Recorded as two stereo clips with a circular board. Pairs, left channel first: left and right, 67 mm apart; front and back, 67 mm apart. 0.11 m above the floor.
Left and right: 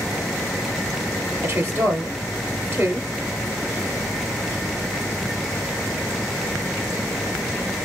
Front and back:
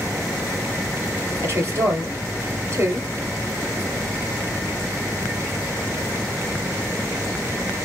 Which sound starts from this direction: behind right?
A woman speaking, at 1.4 s.